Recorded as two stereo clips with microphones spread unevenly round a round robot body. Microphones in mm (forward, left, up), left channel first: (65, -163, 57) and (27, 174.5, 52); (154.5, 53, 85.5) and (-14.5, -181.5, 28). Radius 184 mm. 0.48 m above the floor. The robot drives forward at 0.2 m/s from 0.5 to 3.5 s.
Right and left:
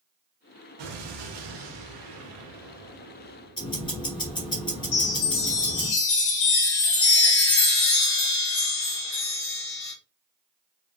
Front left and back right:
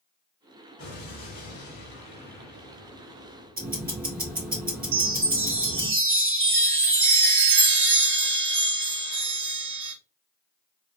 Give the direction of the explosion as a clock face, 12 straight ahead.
8 o'clock.